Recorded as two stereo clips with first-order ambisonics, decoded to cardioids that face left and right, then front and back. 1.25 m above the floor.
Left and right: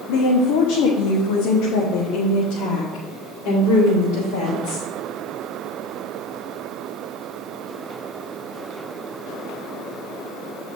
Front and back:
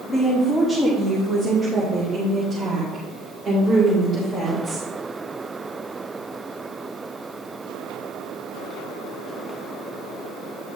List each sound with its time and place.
0.1 s a woman speaking: 80° left, 0.9 m; by 4.9 s 95° left, 3.5 m